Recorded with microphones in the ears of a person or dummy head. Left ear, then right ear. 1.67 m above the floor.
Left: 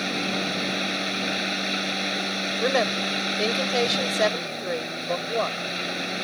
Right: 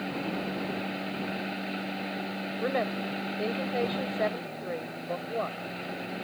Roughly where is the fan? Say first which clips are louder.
Left 7 dB; left.